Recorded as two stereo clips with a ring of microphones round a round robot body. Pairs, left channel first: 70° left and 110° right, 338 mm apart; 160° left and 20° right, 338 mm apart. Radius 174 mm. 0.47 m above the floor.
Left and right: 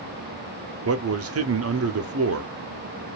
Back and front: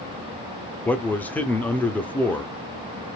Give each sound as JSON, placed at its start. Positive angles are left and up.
{"t": 0.8, "sound": "a man speaking", "azimuth_deg": -120, "distance_m": 0.8}